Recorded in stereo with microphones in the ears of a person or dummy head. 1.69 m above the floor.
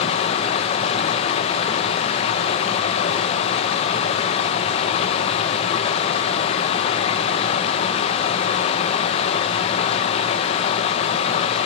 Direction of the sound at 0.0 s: 25° left (ahead or behind).